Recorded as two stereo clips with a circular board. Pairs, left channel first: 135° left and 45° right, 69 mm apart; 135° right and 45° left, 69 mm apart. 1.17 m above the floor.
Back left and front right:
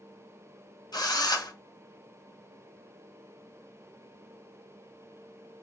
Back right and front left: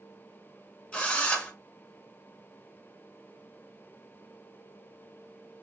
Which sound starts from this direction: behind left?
A drill, at 0.9 s.